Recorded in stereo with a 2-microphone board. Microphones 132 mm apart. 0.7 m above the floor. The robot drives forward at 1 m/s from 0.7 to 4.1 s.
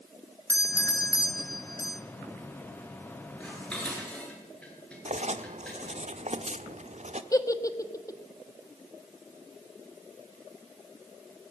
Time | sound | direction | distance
0.5 | a doorbell | 20° left (ahead or behind) | 1.4 m
3.4 | dishes clattering | 10° left (ahead or behind) | 9 m
5.0 | writing | 60° right (ahead or behind) | 1.3 m
7.3 | a giggle | 25° left (ahead or behind) | 1.4 m